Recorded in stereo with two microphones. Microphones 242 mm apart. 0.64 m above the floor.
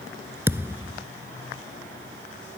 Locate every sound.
0.5 s a thud: 10° right (ahead or behind)